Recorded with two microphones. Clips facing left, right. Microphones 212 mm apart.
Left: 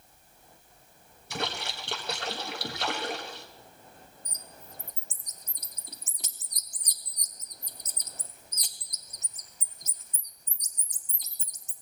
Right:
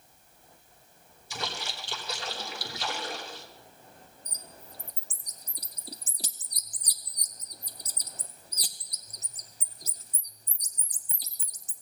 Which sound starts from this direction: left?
A splash, at 1.3 s.